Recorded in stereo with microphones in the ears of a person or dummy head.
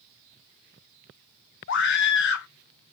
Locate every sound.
1.7 s a scream: 55° left (ahead or behind), 1.4 m